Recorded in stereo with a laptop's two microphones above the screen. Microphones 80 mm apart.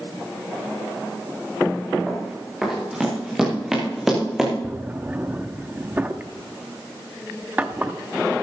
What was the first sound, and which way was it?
Running footsteps, 5° right (ahead or behind).